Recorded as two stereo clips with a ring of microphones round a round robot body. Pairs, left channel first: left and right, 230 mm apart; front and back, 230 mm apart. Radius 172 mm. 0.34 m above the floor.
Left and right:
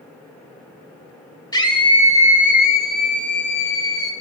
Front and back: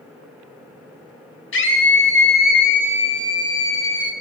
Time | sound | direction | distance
1.5 | a scream | 20° left | 2 m